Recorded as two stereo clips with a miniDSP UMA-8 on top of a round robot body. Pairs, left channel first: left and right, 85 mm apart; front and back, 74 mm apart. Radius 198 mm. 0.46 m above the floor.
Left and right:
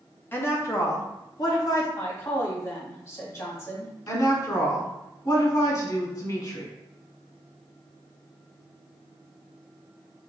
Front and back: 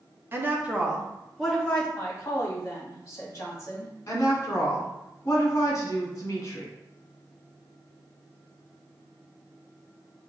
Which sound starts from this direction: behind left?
A woman speaking, at 0.3 s.